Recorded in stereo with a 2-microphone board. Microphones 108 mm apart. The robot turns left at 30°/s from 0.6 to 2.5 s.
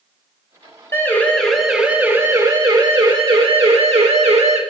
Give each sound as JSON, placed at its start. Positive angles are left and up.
{"t": 0.9, "sound": "a siren", "side_deg": 25, "distance_m": 4.0}